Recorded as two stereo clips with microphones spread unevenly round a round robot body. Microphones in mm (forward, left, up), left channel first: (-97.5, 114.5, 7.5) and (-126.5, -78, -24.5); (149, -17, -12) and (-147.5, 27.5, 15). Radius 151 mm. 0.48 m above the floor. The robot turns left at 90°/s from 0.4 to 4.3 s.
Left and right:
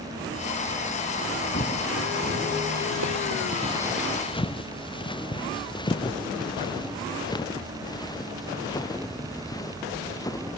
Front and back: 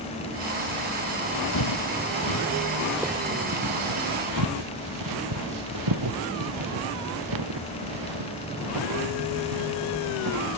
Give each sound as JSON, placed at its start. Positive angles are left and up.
{"t": 1.5, "sound": "footsteps", "azimuth_deg": 25}